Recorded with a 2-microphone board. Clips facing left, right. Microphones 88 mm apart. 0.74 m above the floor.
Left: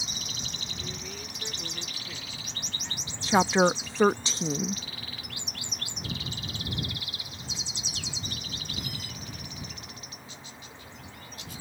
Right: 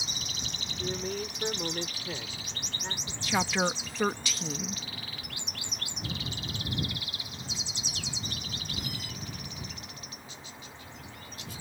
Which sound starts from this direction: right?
A man speaking, at 0.8 s.